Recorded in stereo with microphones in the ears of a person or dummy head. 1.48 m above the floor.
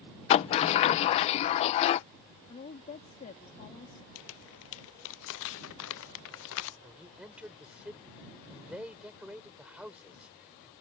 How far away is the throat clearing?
I don't hear throat clearing.